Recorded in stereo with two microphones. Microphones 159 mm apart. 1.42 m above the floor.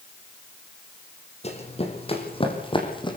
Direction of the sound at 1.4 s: 40° left (ahead or behind).